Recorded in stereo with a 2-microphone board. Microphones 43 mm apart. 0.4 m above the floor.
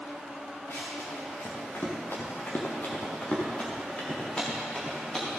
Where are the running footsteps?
85° left, 4 m; by 5.4 s 10° left (ahead or behind), 5 m.